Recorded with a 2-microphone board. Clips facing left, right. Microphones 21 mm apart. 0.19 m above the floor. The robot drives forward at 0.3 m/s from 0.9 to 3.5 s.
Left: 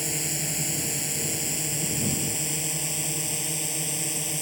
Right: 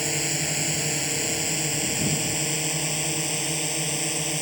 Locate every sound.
0.0 s a drone: 20° right (ahead or behind)